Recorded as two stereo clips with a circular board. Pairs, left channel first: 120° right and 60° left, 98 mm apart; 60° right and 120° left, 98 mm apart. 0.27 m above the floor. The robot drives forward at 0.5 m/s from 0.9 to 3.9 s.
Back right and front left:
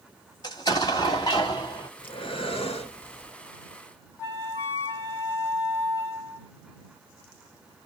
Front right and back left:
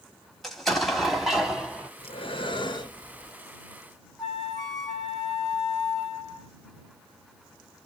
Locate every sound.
0.4 s an explosion: 150° right, 1.6 m; by 1.9 s 160° right, 1.9 m
2.0 s breathing: 85° right, 1.1 m; by 3.3 s 120° right, 1.2 m
4.2 s a flute: 145° right, 1.4 m